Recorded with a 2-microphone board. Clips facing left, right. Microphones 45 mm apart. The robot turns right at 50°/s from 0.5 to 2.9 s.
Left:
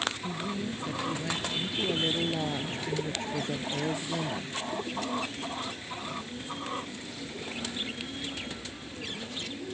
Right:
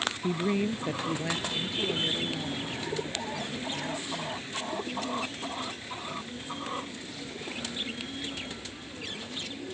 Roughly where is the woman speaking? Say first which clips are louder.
Right 6 dB; ahead right.